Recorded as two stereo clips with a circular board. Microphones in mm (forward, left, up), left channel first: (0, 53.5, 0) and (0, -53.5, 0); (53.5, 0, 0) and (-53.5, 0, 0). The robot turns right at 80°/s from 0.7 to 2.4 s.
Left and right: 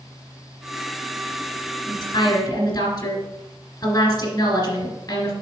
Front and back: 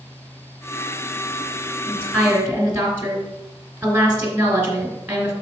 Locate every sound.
1.9 s a woman speaking: 65° left, 2 m; by 5.3 s 105° left, 2 m